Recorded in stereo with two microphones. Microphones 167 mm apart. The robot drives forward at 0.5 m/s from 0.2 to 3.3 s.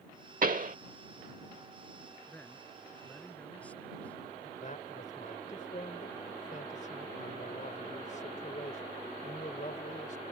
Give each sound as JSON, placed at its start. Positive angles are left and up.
{"t": 0.4, "sound": "a pop", "side_deg": -60}
{"t": 2.3, "sound": "a man speaking", "side_deg": 10}
{"t": 4.6, "sound": "a man speaking", "side_deg": 50}